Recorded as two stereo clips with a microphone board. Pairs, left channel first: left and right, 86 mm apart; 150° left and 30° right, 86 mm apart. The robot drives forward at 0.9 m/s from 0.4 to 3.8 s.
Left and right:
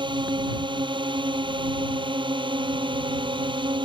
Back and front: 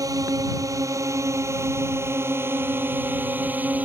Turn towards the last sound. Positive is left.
turn(degrees=-100)